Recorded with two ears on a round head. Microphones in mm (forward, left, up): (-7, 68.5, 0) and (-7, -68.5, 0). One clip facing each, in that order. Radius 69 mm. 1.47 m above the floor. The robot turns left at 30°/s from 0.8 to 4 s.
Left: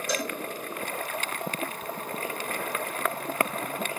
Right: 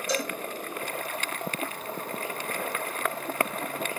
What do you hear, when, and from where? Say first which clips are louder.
0.1 s a cowbell: right 1 dB; 50° left (ahead or behind), 3 m